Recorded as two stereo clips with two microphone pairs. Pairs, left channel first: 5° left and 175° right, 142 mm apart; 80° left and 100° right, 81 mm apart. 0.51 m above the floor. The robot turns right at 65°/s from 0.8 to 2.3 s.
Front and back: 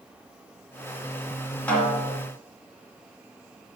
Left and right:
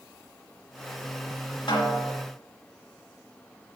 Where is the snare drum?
85° left, 1.8 m; by 2.2 s 120° left, 1.8 m.